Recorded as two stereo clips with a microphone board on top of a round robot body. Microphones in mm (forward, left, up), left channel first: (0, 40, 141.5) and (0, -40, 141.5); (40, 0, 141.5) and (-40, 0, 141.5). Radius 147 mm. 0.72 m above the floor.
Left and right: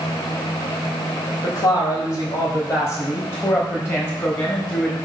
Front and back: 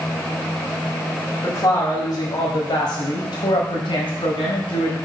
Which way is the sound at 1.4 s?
50° left.